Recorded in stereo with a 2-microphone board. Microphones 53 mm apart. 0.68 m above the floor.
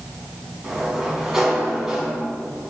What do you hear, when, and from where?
0.6 s a sliding door: 10° right (ahead or behind), 4.5 m